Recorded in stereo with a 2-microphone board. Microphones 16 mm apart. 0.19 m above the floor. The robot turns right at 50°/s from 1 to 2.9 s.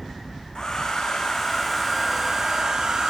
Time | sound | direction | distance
0.6 | a hair dryer | 140° left | 3 m